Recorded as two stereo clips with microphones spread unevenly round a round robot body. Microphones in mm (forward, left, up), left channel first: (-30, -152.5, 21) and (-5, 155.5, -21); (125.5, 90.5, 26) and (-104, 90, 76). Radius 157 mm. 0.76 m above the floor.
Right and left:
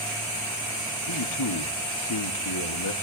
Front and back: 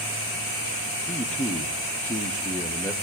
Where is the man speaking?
75° right, 1.7 m.